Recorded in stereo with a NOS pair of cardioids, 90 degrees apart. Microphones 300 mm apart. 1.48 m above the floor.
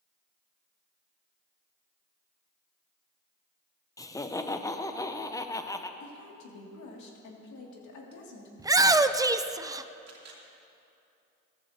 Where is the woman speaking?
70° left, 2.5 m.